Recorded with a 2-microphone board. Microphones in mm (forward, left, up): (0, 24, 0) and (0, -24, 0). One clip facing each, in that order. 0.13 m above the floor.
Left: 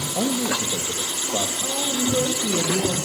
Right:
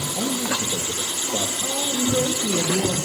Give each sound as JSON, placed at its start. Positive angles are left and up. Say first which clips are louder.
{"t": 0.1, "sound": "a man speaking", "louder": "left 2 dB", "side_deg": 55, "distance_m": 3.5}
{"t": 1.6, "sound": "a woman speaking", "louder": "even", "side_deg": -5, "distance_m": 5.0}